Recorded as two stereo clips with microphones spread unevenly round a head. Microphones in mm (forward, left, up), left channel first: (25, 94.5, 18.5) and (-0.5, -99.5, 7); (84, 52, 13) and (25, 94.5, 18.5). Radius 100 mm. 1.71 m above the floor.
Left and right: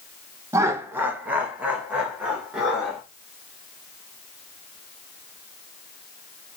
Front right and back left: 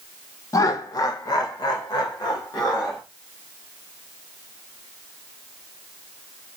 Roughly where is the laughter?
Ahead right.